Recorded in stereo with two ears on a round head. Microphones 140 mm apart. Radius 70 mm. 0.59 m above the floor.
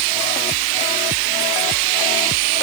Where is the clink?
No clink in this recording.